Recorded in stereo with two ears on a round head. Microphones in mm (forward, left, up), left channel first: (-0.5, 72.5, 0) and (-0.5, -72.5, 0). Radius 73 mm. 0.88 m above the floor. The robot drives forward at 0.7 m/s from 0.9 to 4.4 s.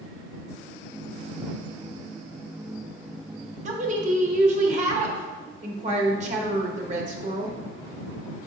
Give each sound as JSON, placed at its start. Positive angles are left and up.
{"t": 3.6, "sound": "a woman speaking", "side_deg": -45, "distance_m": 1.3}